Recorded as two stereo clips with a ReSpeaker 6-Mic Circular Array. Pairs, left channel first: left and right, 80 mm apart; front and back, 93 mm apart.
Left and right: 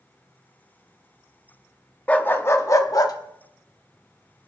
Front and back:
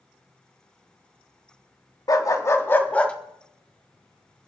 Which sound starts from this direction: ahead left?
A dog barking, at 2.1 s.